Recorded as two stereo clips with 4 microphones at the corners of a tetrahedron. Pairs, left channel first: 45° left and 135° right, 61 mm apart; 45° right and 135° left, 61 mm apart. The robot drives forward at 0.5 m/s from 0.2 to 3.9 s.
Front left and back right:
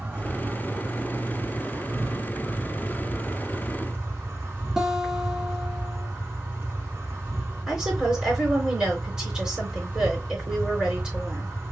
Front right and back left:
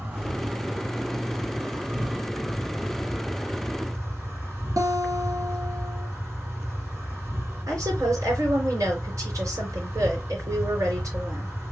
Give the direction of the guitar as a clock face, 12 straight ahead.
7 o'clock.